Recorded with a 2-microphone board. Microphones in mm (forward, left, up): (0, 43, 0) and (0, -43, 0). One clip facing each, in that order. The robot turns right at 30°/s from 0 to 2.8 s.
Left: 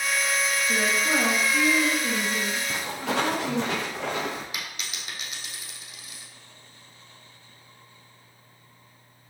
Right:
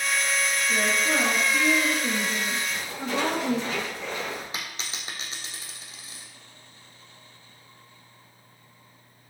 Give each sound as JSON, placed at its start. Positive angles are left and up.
{"t": 0.7, "sound": "a woman speaking", "azimuth_deg": 155, "distance_m": 3.5}
{"t": 2.7, "sound": "footsteps", "side_deg": 80, "distance_m": 4.0}
{"t": 4.5, "sound": "a dropped coin", "side_deg": -30, "distance_m": 2.5}